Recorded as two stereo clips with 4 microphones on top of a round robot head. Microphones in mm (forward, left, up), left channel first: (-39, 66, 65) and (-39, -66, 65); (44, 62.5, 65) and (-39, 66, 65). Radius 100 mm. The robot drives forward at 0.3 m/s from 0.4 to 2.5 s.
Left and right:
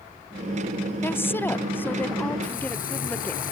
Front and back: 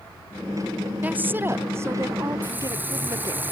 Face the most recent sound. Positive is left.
turn(degrees=110)